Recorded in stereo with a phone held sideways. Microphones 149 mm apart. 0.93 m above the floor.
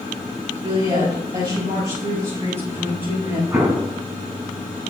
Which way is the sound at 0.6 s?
35° right (ahead or behind).